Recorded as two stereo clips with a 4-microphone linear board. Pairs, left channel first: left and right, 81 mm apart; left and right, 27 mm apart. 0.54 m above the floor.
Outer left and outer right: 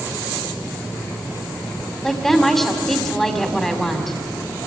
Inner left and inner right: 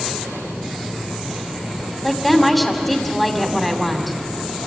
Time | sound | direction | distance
2.0 | a woman speaking | 5° left (ahead or behind) | 2.5 m